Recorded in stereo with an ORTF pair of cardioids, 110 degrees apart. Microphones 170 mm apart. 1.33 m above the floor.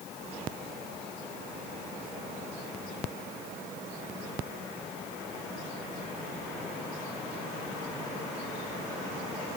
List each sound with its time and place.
Only background noise.